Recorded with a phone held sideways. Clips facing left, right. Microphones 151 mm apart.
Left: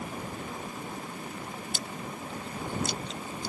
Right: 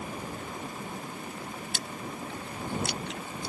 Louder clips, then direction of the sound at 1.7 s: Even; 70° right (ahead or behind).